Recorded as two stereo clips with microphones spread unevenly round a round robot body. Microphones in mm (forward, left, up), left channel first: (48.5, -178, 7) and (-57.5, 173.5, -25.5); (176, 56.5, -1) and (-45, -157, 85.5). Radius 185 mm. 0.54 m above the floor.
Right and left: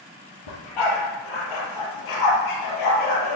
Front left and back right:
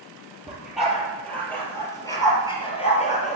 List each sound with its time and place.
0.5 s a dog barking: 50° right, 4 m; by 3.4 s 25° right, 3.5 m